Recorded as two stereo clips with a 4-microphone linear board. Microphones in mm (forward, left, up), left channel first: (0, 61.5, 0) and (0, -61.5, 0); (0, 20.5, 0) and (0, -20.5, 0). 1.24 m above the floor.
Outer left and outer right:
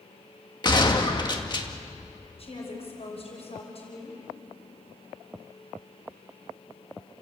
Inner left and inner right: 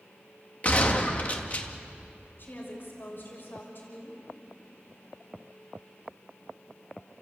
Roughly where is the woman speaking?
Left.